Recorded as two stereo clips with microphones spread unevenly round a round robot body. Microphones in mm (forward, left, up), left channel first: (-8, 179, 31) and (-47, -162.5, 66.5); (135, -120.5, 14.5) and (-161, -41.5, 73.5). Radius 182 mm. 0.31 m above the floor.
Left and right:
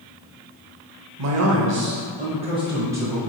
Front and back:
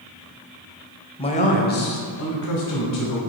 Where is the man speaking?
70° right, 1.1 m; by 3.2 s 10° right, 1.8 m.